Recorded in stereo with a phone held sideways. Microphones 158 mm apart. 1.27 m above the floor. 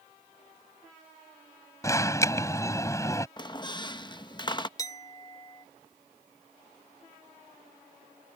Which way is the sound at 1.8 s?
20° left (ahead or behind).